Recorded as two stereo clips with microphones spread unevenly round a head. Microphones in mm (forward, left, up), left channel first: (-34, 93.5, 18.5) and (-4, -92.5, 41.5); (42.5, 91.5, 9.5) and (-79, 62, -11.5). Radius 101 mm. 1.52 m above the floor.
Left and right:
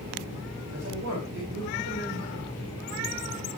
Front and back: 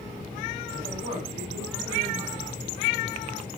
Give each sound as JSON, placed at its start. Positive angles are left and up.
{"t": 0.7, "sound": "a man speaking", "azimuth_deg": -100, "distance_m": 4.5}